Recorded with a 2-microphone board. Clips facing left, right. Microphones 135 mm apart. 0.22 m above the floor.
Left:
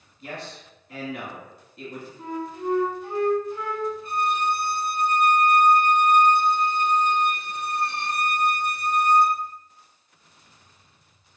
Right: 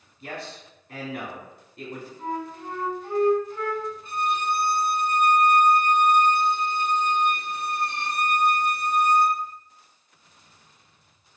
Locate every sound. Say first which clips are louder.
0.2 s a man speaking: even; 40° right (ahead or behind), 1.3 m
2.2 s a flute: left 2 dB; 10° left (ahead or behind), 0.7 m
4.0 s a violin: left 1 dB; 25° right (ahead or behind), 0.7 m